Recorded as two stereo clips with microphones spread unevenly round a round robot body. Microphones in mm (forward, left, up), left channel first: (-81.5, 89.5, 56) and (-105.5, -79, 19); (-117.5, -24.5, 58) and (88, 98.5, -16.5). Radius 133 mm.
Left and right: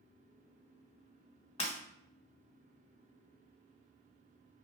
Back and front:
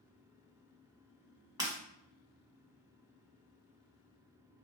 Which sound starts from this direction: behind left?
Breaking glass, at 1.6 s.